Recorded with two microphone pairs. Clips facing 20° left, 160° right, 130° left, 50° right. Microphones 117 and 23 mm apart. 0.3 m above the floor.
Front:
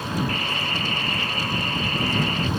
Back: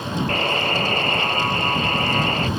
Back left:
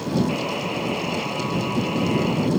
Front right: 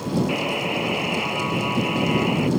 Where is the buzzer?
120° right.